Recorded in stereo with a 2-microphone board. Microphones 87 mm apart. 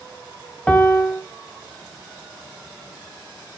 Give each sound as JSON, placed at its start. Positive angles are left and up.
{"t": 0.7, "sound": "a piano", "side_deg": 15, "distance_m": 1.1}